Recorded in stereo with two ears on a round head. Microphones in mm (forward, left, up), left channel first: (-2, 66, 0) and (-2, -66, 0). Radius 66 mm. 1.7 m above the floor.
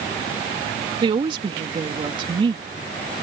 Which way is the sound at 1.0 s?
35° right (ahead or behind).